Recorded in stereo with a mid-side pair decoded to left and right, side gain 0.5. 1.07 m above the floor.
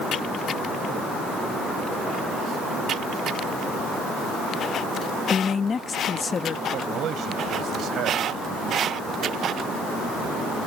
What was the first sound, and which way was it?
A man speaking, 40° left.